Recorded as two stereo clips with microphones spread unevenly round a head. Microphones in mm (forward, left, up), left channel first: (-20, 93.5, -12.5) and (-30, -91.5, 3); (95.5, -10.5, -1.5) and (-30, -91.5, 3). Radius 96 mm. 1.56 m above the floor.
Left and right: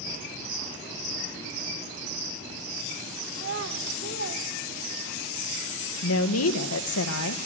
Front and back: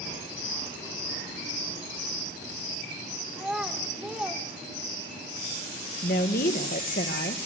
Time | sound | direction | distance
3.3 | a child speaking | 65° right | 3 m
6.0 | a woman speaking | 85° left | 1.9 m